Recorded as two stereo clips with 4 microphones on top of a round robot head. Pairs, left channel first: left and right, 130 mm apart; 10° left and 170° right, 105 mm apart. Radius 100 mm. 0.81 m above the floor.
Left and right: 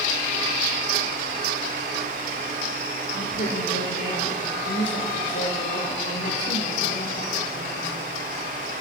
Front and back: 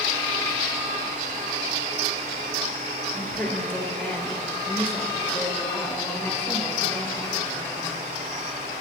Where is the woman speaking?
80° left, 3.5 m.